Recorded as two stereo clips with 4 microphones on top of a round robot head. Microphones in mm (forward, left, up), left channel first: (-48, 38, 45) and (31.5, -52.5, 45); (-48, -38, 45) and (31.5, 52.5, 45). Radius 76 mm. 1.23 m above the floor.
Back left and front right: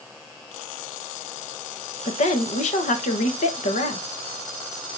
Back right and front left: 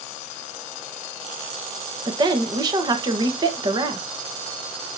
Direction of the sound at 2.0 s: 105° left.